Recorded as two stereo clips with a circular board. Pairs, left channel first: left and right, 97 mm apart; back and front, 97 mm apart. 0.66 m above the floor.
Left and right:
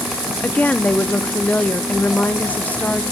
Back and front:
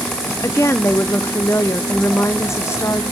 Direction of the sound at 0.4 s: 150° left.